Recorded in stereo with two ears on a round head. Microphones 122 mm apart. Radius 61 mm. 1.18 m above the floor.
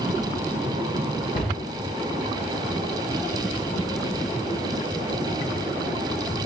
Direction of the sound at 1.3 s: 55° left (ahead or behind).